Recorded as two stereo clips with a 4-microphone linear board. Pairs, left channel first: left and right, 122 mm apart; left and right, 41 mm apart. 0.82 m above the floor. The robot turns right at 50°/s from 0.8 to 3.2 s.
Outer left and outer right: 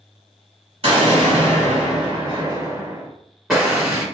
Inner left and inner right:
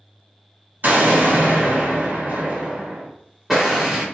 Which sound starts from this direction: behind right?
An explosion, at 0.8 s.